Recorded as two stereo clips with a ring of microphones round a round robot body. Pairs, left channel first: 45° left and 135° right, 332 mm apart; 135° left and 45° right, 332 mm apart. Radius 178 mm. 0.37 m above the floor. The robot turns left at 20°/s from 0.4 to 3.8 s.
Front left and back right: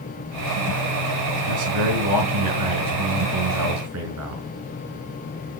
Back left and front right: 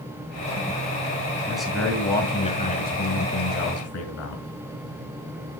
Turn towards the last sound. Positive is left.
turn(degrees=180)